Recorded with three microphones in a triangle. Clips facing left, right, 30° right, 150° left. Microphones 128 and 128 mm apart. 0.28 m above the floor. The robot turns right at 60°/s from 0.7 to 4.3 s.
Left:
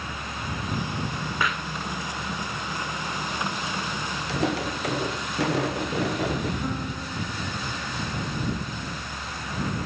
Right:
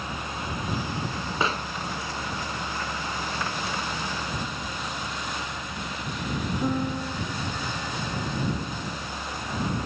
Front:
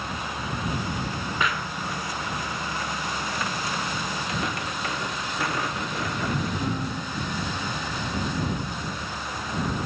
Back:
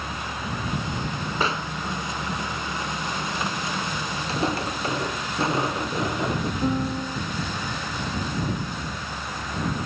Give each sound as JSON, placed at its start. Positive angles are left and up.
{"t": 1.4, "sound": "a pop", "azimuth_deg": -155}
{"t": 4.3, "sound": "footsteps", "azimuth_deg": 90}
{"t": 6.6, "sound": "a piano", "azimuth_deg": -150}